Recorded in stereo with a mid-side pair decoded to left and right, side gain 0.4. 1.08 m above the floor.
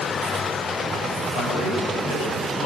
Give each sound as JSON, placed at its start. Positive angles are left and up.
{"t": 1.4, "sound": "a man speaking", "azimuth_deg": 70, "distance_m": 8.5}